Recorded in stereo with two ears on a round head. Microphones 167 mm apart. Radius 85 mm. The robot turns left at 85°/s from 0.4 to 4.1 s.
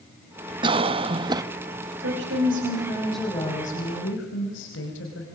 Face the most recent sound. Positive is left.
turn(degrees=100)